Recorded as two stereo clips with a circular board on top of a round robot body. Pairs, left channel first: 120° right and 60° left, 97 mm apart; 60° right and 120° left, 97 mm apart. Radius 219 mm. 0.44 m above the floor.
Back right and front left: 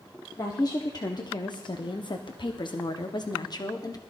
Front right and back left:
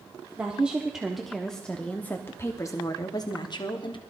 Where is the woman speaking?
165° right, 1.6 m; by 4.0 s 75° right, 1.5 m.